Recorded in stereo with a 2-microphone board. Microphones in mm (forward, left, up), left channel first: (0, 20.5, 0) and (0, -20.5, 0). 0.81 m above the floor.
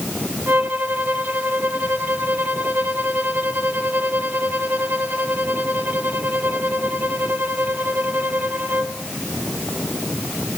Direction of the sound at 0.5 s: 50° right (ahead or behind).